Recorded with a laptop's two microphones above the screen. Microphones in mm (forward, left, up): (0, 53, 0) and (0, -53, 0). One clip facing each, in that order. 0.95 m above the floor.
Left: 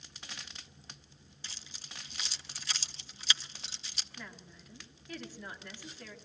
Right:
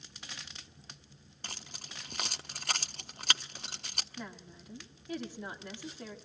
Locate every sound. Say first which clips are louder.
1.4 s keys jangling: right 6 dB; 55° right (ahead or behind), 0.5 m
4.2 s a woman speaking: right 4 dB; 20° right (ahead or behind), 1.7 m